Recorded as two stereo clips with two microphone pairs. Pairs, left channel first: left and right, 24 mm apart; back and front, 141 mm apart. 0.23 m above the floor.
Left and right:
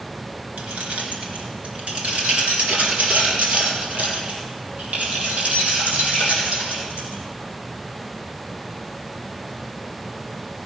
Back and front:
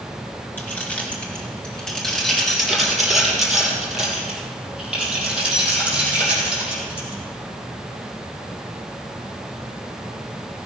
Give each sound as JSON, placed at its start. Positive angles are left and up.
{"t": 0.6, "sound": "keys jangling", "azimuth_deg": -100, "distance_m": 2.0}